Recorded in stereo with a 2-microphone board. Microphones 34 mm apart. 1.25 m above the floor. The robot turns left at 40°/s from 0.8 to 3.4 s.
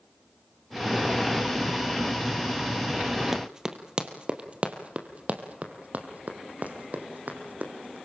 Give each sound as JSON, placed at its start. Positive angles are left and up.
{"t": 3.3, "sound": "running footsteps", "side_deg": -10, "distance_m": 1.9}